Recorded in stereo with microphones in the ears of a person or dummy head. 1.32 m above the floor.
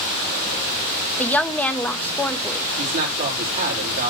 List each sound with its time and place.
1.2 s a woman speaking: 10° left (ahead or behind), 0.9 m
2.8 s a man speaking: 40° right (ahead or behind), 3.5 m